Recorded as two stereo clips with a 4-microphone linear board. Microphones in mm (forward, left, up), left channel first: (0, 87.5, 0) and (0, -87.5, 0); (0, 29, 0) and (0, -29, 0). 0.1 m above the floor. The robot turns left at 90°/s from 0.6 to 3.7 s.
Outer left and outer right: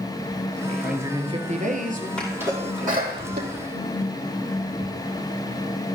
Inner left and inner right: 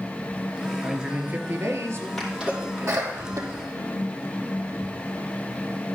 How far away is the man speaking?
About 2 m.